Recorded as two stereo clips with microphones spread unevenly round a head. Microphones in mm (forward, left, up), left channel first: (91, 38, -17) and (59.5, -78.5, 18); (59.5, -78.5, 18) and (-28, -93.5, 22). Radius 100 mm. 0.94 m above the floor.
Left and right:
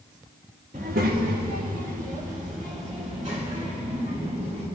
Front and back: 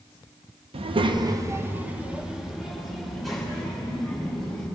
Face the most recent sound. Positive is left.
turn(degrees=-75)